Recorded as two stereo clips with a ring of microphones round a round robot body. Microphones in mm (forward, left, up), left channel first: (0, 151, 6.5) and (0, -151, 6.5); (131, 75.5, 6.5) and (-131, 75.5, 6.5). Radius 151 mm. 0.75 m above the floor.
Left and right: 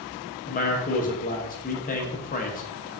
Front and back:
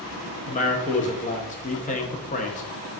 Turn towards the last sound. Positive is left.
turn(degrees=45)